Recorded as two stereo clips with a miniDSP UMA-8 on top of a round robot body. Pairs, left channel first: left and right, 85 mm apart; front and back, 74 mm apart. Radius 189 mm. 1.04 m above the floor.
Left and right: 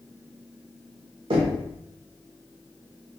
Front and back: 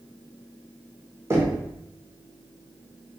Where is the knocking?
120° right, 0.7 m.